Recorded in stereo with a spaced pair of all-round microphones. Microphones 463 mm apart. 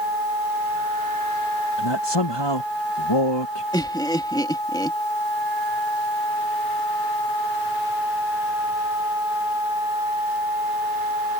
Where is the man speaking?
60° left (ahead or behind).